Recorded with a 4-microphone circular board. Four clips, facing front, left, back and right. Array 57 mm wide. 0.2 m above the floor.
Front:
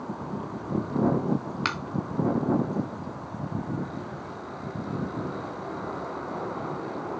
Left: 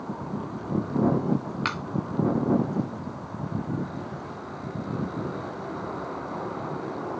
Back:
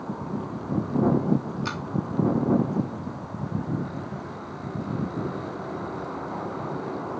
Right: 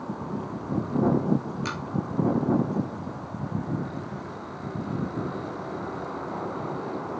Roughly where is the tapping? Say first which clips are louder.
Left 3 dB, front 3 dB; ahead left.